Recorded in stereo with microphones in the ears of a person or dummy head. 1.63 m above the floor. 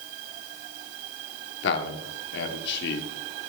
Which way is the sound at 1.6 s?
60° left (ahead or behind).